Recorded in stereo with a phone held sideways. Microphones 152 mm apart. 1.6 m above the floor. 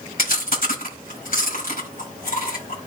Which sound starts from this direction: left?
Chewing, at 0.2 s.